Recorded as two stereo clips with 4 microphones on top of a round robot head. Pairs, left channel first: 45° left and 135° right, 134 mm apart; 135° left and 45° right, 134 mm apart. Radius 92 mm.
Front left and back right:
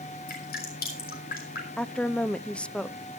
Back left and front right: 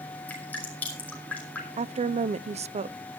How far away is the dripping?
About 5 m.